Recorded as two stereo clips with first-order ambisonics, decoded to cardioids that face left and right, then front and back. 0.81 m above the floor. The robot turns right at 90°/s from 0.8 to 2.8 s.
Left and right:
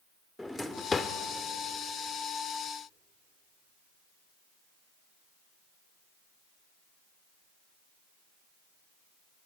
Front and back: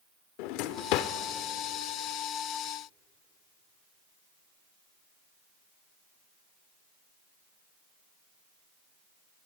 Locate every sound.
0.4 s a drawer: 5° left, 0.9 m; by 1.1 s 35° left, 0.9 m